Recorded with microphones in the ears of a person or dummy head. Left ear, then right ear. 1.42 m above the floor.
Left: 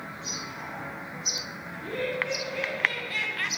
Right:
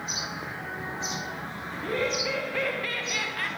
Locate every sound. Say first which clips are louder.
1.7 s laughter: right 2 dB; 50° right (ahead or behind), 1.7 m; by 3.5 s 15° left (ahead or behind), 0.8 m